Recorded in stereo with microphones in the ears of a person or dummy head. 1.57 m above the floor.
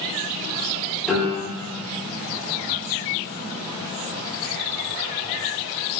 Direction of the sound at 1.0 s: 10° left (ahead or behind).